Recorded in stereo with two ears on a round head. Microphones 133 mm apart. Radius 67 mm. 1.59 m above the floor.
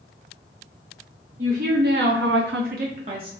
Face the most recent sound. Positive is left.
turn(degrees=-30)  # may be behind; listen again after turning